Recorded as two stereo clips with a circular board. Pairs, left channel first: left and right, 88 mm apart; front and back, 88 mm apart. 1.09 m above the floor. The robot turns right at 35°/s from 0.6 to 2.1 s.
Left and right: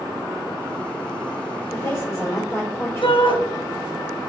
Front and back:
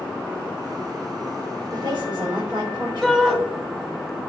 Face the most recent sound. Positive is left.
turn(degrees=95)